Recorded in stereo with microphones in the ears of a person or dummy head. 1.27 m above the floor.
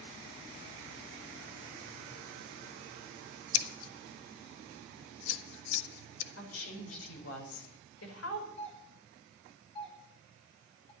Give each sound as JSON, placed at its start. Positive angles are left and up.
{"t": 3.5, "sound": "scissors", "side_deg": 75, "distance_m": 1.3}
{"t": 6.4, "sound": "a woman speaking", "side_deg": 85, "distance_m": 5.0}
{"t": 8.6, "sound": "a doorbell", "side_deg": 35, "distance_m": 9.5}